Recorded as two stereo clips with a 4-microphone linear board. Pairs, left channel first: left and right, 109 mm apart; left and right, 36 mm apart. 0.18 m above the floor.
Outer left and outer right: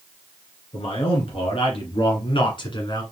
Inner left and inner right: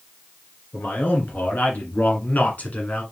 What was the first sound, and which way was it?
A man speaking, 60° left (ahead or behind).